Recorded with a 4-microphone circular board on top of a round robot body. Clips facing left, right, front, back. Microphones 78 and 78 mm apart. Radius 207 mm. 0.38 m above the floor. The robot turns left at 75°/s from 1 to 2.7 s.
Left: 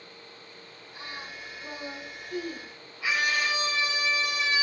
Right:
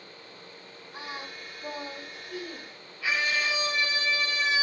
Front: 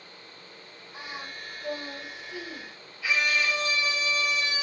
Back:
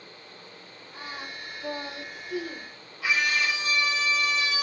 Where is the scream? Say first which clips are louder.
Left 1 dB, back 1 dB; 160° left, 5.5 m.